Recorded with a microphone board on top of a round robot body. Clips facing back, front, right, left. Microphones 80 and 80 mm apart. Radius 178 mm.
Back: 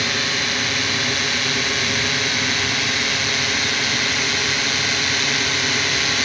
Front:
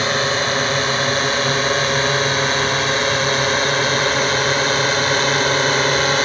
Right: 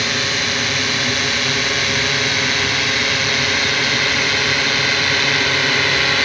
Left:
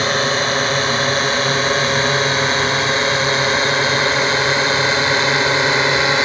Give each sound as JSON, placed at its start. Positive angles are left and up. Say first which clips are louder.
{"t": 0.0, "sound": "a drone", "louder": "front 5 dB, left 5 dB", "azimuth_deg": 45}